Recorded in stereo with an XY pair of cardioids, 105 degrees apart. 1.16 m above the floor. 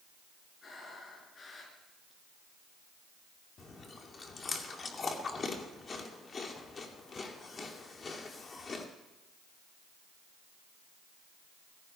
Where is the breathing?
40° left, 5 m.